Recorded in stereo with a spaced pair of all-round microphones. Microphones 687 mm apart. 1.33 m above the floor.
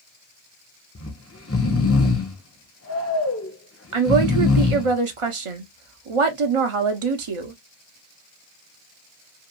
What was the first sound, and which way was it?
Snoring, 20° left (ahead or behind).